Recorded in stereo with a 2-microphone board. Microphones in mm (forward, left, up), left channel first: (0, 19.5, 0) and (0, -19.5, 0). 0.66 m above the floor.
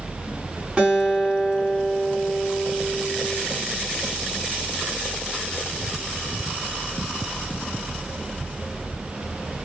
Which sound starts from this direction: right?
A guitar, at 0.8 s.